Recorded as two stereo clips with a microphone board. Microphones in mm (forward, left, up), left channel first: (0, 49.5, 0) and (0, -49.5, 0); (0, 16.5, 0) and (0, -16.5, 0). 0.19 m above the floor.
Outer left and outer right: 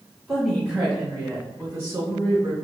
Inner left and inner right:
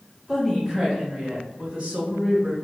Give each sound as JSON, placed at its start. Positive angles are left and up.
{"t": 0.3, "sound": "a woman speaking", "side_deg": 0, "distance_m": 1.5}